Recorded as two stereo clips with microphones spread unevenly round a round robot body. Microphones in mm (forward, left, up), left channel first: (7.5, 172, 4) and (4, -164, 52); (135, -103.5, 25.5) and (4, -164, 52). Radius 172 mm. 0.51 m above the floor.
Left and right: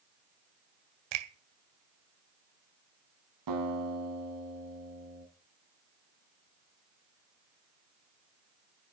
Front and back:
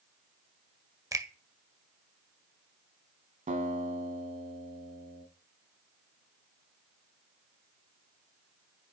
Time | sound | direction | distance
1.1 | a finger snap | 85° right | 1.8 m
3.5 | a guitar | 125° right | 3.5 m